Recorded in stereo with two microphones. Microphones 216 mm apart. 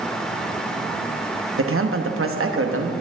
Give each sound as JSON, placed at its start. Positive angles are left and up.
{"t": 1.6, "sound": "a man speaking", "side_deg": -75, "distance_m": 1.0}